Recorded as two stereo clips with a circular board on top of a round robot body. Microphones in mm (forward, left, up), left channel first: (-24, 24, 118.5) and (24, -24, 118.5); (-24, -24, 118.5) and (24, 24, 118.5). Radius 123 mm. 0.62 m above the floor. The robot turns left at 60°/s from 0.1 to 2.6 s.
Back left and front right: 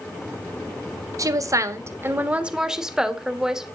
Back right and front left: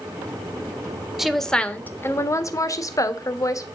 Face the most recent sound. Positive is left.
turn(degrees=-125)